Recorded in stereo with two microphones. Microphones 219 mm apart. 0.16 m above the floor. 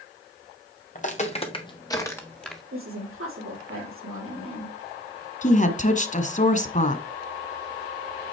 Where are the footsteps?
35° left (ahead or behind), 2.5 m; by 2.6 s centre (ahead or behind), 2.5 m.